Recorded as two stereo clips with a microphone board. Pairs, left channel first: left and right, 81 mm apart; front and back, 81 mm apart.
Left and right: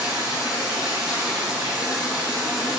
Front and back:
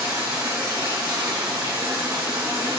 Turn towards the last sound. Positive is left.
turn(degrees=-170)